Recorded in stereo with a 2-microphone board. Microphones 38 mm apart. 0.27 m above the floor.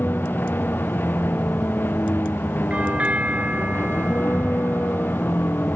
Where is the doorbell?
35° right (ahead or behind).